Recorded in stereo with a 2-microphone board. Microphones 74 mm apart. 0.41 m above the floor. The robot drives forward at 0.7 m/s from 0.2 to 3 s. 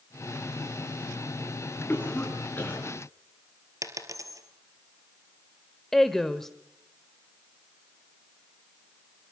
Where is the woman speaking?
5° left (ahead or behind), 1.1 m.